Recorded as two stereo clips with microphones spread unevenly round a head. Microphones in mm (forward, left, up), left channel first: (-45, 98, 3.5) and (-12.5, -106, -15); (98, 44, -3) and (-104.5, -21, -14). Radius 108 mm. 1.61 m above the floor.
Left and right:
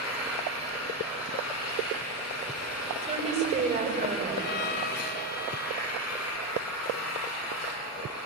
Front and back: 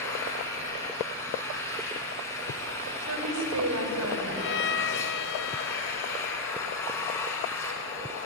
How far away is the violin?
About 1.2 m.